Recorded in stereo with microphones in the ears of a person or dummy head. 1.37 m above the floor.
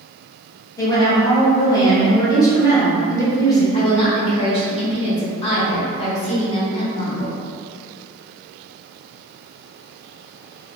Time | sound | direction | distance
0.8 | a woman speaking | 15° left (ahead or behind) | 1.0 m
3.7 | a woman speaking | 35° left (ahead or behind) | 1.0 m